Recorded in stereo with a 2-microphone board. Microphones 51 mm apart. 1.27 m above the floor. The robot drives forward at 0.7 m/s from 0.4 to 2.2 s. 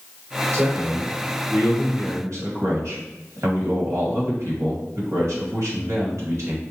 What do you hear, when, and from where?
0.5 s a man speaking: 65° right (ahead or behind), 2.0 m; by 6.6 s 75° right (ahead or behind), 1.8 m